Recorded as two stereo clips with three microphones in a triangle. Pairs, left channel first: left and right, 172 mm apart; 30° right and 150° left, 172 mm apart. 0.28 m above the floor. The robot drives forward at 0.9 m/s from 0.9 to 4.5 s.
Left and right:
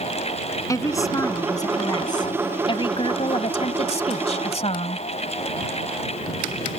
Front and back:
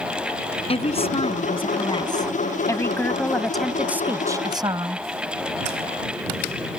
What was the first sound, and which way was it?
A woman speaking, 20° left.